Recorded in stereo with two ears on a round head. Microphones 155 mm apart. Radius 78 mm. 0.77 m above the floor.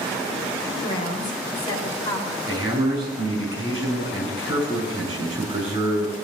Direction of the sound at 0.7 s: 30° left (ahead or behind).